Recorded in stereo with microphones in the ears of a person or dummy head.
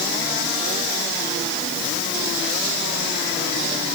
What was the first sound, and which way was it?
Only background noise.